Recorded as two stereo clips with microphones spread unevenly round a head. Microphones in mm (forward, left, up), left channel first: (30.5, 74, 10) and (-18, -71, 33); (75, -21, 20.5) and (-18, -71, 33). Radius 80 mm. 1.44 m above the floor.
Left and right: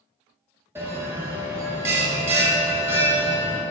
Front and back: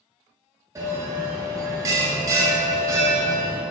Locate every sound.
0.8 s a bell: 155° right, 0.7 m